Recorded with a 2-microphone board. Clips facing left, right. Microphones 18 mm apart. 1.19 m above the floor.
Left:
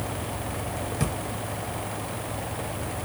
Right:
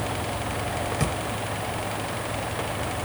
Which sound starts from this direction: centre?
A drawer, at 1.0 s.